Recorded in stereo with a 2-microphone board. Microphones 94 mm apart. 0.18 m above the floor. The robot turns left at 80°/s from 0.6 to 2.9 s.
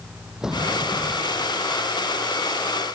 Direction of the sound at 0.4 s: 5° right.